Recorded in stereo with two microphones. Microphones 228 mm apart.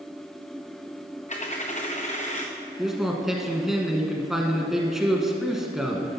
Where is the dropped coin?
30° left (ahead or behind), 1.4 m.